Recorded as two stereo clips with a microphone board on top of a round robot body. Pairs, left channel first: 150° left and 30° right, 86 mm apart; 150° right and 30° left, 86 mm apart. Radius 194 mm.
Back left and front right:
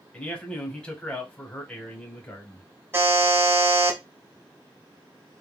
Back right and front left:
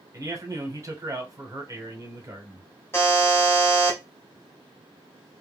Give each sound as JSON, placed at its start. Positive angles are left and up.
{"t": 0.1, "sound": "a man speaking", "azimuth_deg": 75, "distance_m": 1.2}
{"t": 2.9, "sound": "a buzzer", "azimuth_deg": -90, "distance_m": 1.4}